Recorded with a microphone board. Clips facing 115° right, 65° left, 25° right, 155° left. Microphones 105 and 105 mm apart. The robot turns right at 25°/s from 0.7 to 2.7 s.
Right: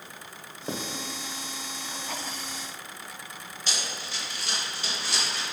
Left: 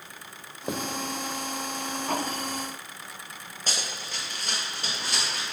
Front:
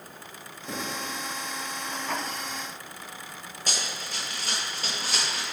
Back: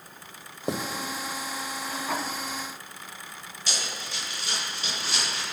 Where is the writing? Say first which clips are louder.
Left 2 dB, back 6 dB; 145° left, 1.2 m.